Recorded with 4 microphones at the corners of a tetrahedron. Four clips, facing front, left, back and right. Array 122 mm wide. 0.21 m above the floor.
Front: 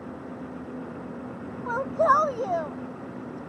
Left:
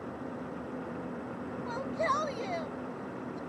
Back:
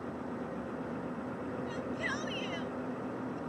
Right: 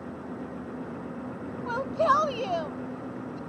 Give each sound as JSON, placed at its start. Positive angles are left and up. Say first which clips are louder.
{"t": 1.7, "sound": "a shout", "louder": "right 8 dB, front 21 dB", "azimuth_deg": -25}